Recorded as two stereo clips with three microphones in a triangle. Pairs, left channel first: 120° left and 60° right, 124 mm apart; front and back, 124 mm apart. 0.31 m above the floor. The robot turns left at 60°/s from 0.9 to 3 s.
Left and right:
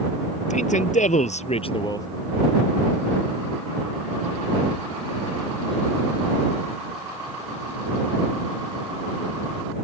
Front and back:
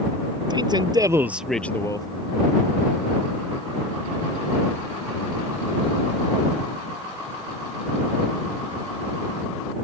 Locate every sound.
0.5 s a man speaking: 125° left; by 2.1 s 55° left